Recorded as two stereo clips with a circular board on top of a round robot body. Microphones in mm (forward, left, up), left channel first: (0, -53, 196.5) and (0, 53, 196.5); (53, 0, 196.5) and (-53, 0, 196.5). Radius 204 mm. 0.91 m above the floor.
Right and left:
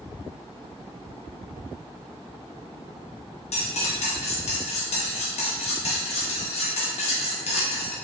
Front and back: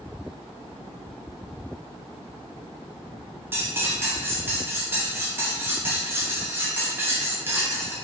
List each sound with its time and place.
3.5 s cutlery clinking: 110° right, 0.5 m